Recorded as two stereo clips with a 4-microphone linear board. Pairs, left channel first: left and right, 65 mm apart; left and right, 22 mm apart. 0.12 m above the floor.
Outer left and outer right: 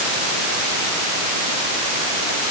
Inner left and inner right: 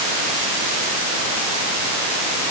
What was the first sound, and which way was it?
Only background noise.